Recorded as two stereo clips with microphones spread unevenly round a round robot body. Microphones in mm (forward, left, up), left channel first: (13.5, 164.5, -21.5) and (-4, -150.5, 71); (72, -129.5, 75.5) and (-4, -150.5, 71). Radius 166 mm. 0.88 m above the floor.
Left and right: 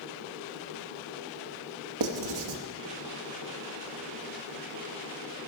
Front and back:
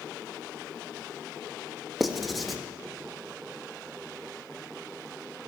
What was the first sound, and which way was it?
Writing, 75° right.